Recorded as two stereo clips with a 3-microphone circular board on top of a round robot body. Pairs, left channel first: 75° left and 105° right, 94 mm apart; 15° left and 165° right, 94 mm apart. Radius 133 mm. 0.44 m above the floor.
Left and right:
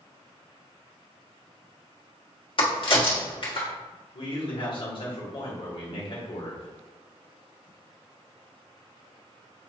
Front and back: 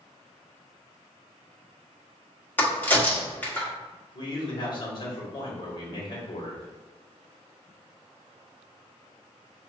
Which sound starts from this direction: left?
A crack, at 2.6 s.